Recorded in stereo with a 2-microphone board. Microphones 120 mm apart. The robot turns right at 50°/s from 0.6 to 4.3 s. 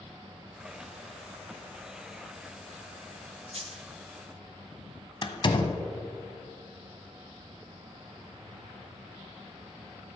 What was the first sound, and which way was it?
A dropped coin, 55° right (ahead or behind).